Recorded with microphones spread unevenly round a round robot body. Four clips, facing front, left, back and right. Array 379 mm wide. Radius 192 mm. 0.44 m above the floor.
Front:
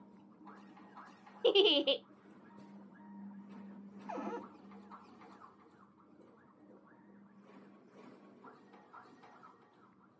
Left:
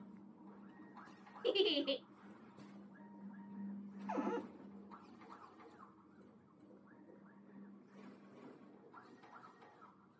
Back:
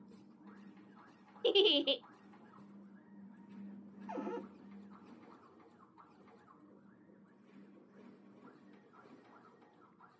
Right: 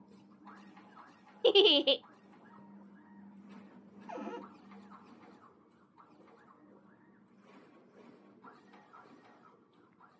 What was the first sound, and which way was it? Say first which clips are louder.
A giggle: right 10 dB, front 2 dB; 70° right.